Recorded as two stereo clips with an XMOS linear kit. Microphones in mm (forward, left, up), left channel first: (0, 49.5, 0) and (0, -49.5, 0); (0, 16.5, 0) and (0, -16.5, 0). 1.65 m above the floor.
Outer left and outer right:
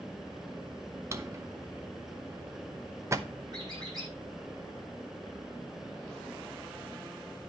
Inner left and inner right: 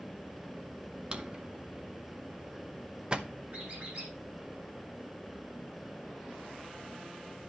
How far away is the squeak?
About 7.5 m.